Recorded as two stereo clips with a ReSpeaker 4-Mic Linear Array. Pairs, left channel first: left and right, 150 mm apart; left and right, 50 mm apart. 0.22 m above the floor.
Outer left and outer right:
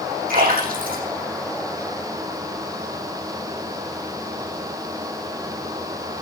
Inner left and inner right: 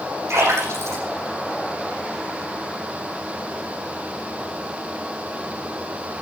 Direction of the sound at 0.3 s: 80° right.